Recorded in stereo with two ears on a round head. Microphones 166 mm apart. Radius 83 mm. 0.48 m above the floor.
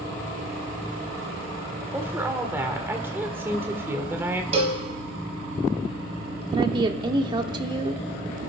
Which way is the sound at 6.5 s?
25° right (ahead or behind).